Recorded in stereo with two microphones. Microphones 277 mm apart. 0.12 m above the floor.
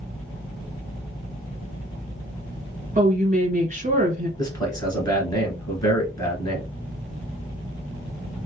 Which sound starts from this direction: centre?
A man speaking, at 4.4 s.